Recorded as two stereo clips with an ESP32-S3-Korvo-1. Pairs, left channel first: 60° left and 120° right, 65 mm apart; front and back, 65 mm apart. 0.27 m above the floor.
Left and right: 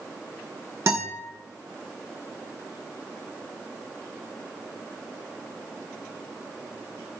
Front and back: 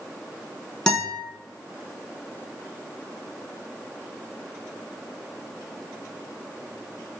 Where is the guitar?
80° right, 0.7 m.